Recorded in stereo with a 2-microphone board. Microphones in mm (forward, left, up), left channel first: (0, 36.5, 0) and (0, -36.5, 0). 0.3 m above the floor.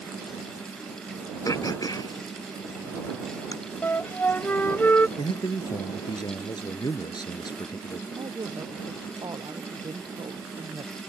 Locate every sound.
1.4 s throat clearing: 55° left (ahead or behind)
3.8 s a flute: 25° left (ahead or behind)
5.2 s a man speaking: 65° left (ahead or behind)
8.1 s a woman speaking: 85° right